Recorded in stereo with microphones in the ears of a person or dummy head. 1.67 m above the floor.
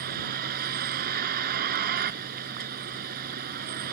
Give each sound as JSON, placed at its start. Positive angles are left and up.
{"t": 0.0, "sound": "a vehicle", "side_deg": -55}